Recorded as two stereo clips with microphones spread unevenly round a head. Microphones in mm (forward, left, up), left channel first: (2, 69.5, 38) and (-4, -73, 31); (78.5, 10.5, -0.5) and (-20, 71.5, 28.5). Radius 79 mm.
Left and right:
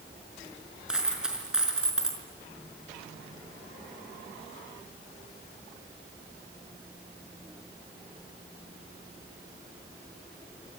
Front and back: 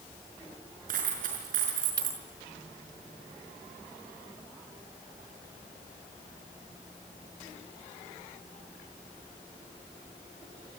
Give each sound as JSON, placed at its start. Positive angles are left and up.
{"t": 0.9, "sound": "a dropped coin", "azimuth_deg": 180, "distance_m": 5.0}